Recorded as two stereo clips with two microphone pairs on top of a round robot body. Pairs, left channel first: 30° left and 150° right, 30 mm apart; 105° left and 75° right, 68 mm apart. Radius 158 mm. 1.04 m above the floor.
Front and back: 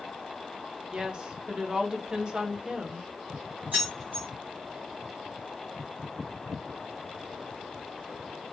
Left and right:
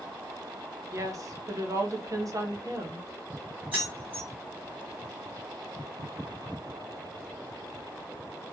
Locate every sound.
0.9 s a woman speaking: 100° right, 0.8 m
3.7 s keys jangling: 145° right, 1.2 m